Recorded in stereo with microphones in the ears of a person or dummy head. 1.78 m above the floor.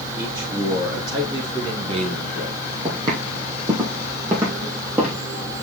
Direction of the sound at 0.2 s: 20° right (ahead or behind).